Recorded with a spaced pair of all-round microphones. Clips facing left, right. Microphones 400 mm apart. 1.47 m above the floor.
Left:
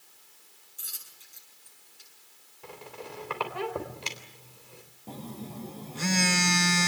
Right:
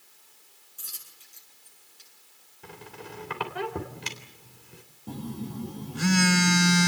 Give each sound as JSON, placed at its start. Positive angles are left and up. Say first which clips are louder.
{"t": 0.8, "sound": "a dropped coin", "louder": "right 1 dB", "side_deg": -10, "distance_m": 8.0}
{"t": 2.6, "sound": "a squeak", "louder": "left 1 dB", "side_deg": -30, "distance_m": 3.5}
{"t": 5.1, "sound": "a phone buzzing", "louder": "right 5 dB", "side_deg": -25, "distance_m": 0.8}